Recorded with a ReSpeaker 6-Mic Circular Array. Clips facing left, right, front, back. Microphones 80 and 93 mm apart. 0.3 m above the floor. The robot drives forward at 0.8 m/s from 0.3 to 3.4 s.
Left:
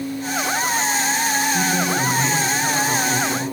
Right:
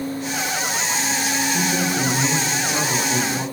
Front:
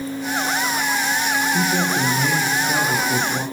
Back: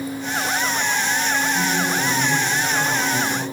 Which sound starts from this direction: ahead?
A man speaking, at 1.5 s.